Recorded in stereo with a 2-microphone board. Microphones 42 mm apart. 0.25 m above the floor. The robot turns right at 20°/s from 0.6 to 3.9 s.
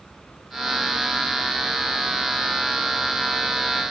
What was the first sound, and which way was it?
Only background noise.